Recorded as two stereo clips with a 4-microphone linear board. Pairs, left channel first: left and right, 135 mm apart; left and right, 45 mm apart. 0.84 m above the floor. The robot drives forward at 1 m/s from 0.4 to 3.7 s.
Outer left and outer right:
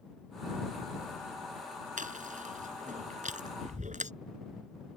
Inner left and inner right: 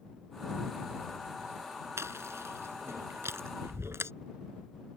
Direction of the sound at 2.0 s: 75° right (ahead or behind).